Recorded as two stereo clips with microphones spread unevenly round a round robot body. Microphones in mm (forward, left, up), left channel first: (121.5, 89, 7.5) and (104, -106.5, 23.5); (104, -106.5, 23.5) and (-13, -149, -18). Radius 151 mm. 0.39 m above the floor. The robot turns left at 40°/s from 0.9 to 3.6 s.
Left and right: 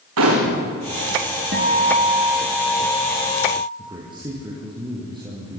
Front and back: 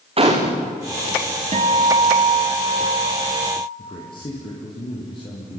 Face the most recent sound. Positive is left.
turn(degrees=-30)